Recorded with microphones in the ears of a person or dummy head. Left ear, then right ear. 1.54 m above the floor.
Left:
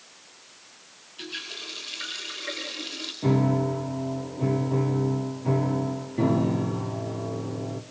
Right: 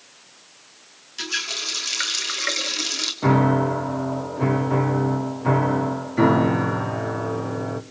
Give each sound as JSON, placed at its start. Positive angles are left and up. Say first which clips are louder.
{"t": 1.2, "sound": "a running tap", "louder": "right 9 dB", "side_deg": -65, "distance_m": 2.5}
{"t": 3.2, "sound": "a piano", "louder": "right 5 dB", "side_deg": -55, "distance_m": 1.0}